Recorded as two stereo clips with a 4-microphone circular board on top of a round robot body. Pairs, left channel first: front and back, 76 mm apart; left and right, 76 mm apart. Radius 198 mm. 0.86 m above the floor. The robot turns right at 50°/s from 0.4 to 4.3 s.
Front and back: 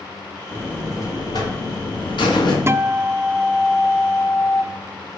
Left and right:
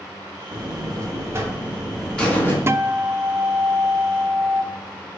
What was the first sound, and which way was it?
A buzzer, 75° right.